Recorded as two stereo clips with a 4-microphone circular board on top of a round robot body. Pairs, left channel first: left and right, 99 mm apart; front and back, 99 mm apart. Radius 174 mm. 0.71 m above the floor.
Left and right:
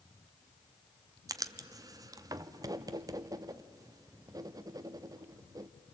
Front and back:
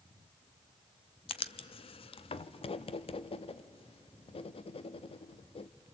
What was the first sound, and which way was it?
Writing, 30° right.